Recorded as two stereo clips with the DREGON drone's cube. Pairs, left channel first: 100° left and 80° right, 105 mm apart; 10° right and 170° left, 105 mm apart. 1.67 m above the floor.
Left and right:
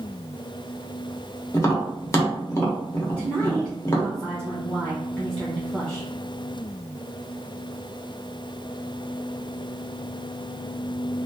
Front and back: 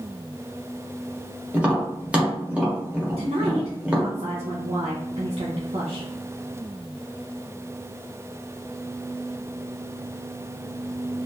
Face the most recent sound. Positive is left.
turn(degrees=180)